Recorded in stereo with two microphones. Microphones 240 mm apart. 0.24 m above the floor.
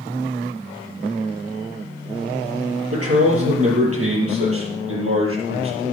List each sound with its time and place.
2.9 s a man speaking: 75° right (ahead or behind), 5.5 m; by 5.9 s 60° right (ahead or behind), 6.5 m